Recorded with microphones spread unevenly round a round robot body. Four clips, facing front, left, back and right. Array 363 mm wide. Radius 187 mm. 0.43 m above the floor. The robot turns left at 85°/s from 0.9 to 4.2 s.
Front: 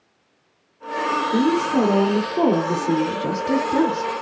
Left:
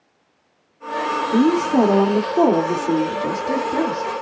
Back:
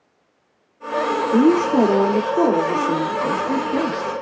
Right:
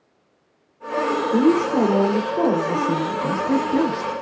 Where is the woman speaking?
170° left, 1.2 m; by 4.1 s 70° right, 1.2 m.